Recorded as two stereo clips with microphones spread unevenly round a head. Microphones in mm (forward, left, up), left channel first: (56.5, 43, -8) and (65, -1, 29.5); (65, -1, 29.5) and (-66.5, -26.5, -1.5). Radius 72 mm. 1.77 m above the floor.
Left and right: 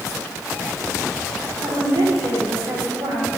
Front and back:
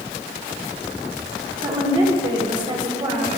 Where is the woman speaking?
110° right, 5 m.